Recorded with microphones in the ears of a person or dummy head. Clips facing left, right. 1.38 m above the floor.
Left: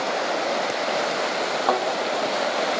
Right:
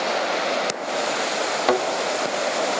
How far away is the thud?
About 1.3 m.